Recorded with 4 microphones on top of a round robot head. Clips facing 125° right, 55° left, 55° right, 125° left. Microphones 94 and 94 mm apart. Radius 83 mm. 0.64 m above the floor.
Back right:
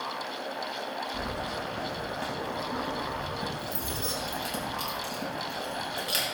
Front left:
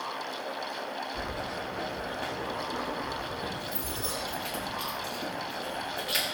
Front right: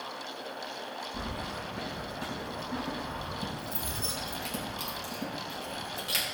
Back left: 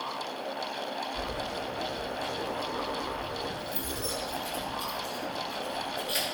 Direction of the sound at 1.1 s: 75° right.